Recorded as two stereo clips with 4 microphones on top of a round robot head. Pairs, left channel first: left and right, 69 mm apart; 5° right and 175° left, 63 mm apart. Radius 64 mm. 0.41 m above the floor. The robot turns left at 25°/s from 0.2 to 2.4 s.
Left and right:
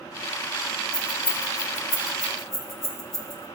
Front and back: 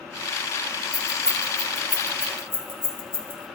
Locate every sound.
0.9 s keys jangling: 85° left, 3 m; by 3.5 s 45° left, 3 m